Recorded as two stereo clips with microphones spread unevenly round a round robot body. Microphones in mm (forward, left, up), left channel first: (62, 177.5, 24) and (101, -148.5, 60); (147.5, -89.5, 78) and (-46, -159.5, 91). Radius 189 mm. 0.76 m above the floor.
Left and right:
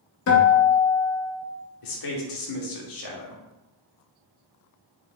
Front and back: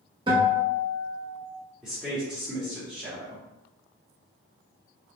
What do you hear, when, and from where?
0.3 s a guitar: 130° left, 0.8 m
1.8 s a man speaking: 110° left, 1.1 m